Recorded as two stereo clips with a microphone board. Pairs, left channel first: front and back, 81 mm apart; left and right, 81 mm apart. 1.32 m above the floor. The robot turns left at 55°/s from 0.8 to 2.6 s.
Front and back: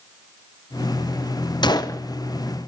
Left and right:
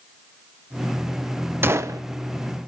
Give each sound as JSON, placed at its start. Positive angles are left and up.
{"t": 1.6, "sound": "a gunshot", "azimuth_deg": -25, "distance_m": 0.7}